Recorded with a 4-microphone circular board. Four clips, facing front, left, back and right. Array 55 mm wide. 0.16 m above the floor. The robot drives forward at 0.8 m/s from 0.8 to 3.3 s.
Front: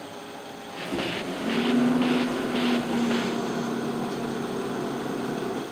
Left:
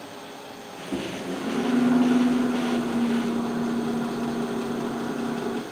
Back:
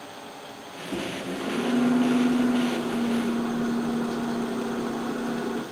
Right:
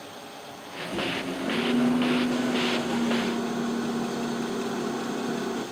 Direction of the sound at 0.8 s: 105° left.